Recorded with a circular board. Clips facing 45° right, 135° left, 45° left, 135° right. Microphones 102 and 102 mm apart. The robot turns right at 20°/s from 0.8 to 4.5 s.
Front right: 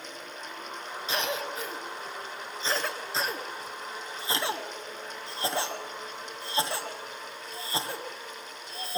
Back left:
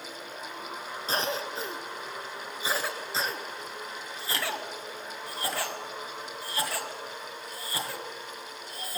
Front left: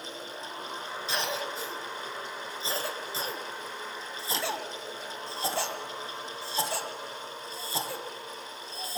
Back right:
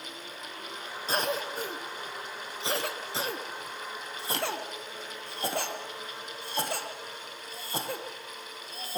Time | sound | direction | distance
1.1 | a cough | 175° right | 2 m